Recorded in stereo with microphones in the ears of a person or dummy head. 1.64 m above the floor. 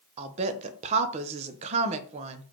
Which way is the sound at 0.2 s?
40° right (ahead or behind).